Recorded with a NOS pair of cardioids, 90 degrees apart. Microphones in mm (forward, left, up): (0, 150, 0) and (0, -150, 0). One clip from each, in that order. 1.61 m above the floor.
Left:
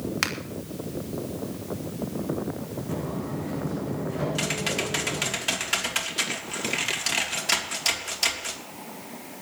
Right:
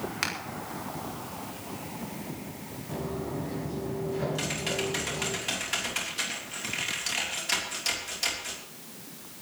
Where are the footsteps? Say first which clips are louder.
Even; 40° left, 7 m.